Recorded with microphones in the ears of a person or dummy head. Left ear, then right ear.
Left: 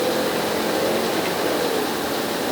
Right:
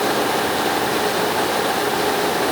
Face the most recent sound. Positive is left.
No sound to turn to.